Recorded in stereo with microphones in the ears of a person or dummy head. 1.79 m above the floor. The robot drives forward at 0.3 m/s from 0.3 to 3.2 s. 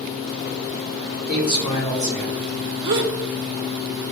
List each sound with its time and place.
1.3 s a man speaking: 30° left (ahead or behind), 2 m; by 2.6 s 25° left (ahead or behind), 2.5 m
2.8 s a gasp: 30° right (ahead or behind), 0.6 m; by 3.1 s 25° right (ahead or behind), 0.6 m